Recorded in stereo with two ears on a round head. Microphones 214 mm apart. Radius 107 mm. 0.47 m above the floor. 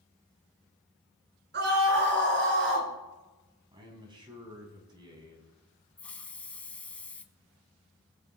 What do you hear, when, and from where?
1.5 s a scream: 45° right (ahead or behind), 4.5 m; by 2.9 s 55° right (ahead or behind), 5.5 m
3.7 s a man speaking: 20° right (ahead or behind), 3.5 m
6.0 s a hiss: 5° left (ahead or behind), 0.8 m